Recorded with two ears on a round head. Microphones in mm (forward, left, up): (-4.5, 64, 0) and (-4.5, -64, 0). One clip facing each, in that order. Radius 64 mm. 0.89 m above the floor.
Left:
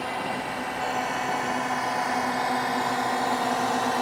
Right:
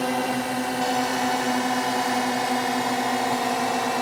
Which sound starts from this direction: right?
A drone, at 0.0 s.